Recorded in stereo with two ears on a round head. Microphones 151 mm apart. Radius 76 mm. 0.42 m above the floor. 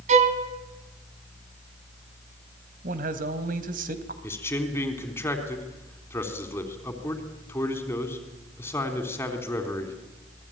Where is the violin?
40° right (ahead or behind), 2 m.